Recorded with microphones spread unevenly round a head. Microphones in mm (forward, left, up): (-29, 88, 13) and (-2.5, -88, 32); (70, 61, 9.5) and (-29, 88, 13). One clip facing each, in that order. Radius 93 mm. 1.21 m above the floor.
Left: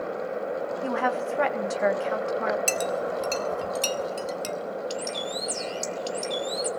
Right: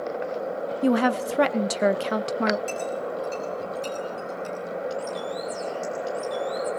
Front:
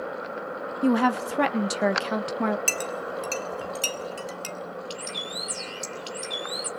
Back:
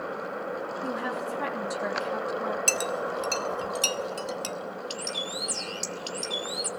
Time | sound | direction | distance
0.8 | a woman speaking | 35° right | 1.6 m
2.7 | a clink | 95° left | 2.5 m
4.9 | a bird | 110° left | 2.5 m